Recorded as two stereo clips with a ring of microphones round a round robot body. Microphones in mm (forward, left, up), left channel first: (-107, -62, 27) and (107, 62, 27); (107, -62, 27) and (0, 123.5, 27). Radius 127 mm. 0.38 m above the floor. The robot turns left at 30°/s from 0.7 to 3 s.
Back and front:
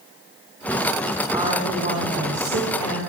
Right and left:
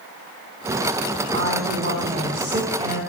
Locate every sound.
1.3 s a woman speaking: 105° left, 4 m; by 3.0 s 55° left, 4 m